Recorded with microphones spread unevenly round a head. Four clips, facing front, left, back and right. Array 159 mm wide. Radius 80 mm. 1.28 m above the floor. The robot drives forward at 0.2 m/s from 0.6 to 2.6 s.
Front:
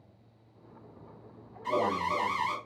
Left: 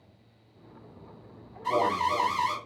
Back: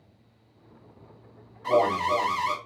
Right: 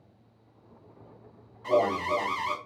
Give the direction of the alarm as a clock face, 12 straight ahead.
5 o'clock.